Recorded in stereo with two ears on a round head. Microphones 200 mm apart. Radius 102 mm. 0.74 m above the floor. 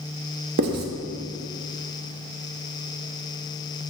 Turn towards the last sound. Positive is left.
turn(degrees=-45)  # may be behind; listen again after turning